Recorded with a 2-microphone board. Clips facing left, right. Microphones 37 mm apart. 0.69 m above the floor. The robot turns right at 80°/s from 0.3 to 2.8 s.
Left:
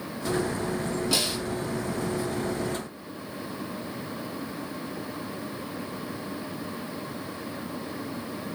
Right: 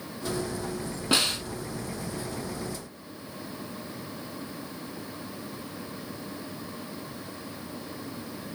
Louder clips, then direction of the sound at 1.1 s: Right 6 dB; 35° right (ahead or behind).